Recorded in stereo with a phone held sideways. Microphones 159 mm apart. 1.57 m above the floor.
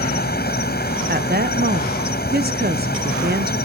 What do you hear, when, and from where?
0.0 s an insect: 85° left
1.1 s a woman speaking: 80° right